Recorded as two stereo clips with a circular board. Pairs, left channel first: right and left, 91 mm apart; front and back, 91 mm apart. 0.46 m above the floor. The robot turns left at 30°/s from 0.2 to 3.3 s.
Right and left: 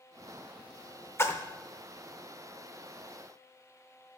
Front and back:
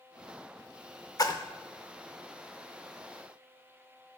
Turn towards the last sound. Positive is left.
turn(degrees=-95)